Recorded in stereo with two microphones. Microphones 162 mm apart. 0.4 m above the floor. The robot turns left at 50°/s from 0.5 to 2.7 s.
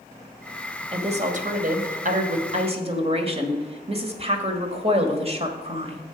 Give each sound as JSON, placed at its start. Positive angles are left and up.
{"t": 0.9, "sound": "a woman speaking", "azimuth_deg": -45, "distance_m": 1.5}